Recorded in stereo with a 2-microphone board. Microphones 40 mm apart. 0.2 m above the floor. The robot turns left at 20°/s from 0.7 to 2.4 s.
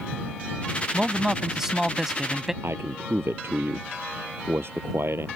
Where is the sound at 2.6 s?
75° right (ahead or behind).